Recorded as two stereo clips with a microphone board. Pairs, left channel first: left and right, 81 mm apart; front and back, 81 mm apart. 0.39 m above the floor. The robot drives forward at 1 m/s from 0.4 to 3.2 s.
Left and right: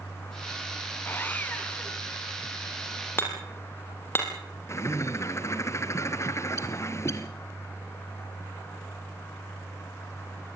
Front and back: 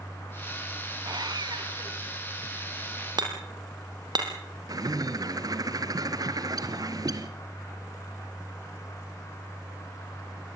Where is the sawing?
155° left, 1.5 m; by 2.1 s 165° left, 2.5 m.